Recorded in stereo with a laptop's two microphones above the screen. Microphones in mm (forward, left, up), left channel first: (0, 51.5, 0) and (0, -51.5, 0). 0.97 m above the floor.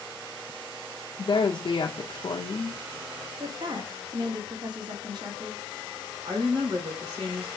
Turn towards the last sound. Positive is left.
turn(degrees=-55)  # may be behind; listen again after turning